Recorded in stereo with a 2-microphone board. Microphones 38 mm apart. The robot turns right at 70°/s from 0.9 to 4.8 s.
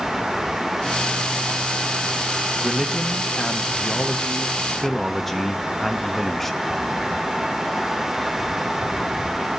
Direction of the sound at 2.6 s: 5° left (ahead or behind).